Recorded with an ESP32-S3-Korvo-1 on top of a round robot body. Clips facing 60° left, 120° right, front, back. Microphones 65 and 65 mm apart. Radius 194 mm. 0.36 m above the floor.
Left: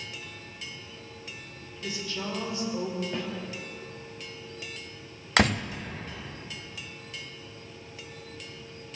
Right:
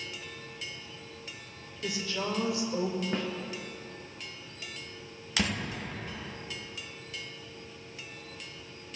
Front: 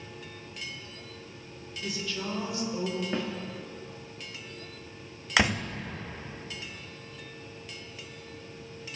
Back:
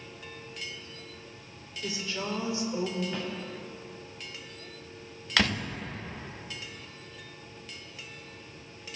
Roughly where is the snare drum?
Ahead right.